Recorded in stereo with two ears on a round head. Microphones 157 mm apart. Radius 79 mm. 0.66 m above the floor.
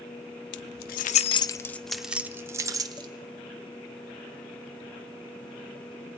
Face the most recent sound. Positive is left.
turn(degrees=-25)  # may be behind; listen again after turning